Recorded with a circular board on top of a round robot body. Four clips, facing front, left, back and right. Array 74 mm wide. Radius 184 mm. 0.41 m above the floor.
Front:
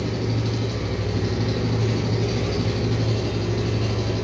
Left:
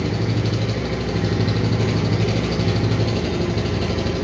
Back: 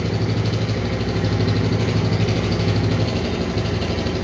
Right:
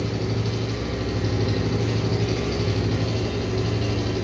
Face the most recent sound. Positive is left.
turn(degrees=145)